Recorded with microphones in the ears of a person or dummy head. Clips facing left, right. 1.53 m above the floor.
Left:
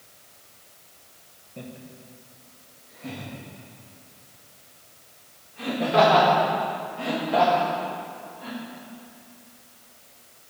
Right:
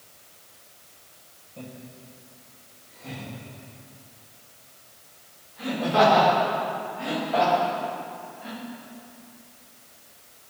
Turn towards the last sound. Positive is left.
turn(degrees=55)  # may be behind; listen again after turning